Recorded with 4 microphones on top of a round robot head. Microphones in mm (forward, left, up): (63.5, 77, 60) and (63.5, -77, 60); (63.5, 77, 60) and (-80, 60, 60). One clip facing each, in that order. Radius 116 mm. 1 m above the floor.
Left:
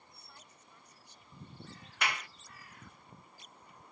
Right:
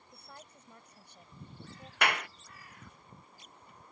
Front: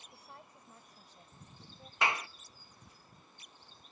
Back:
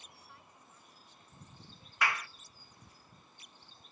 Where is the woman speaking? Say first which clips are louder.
Right 11 dB, front 4 dB; 55° right.